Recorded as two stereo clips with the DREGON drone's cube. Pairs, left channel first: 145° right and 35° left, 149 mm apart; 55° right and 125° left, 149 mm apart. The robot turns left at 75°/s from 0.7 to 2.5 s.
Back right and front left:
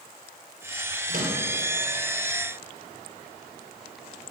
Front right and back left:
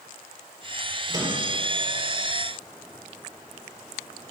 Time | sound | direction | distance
1.1 | a microwave | 60° left | 3 m